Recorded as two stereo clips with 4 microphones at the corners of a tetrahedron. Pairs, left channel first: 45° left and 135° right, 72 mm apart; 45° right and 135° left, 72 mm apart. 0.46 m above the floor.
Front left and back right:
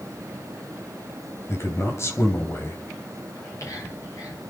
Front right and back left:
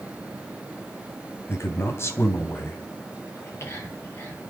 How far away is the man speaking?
About 3 m.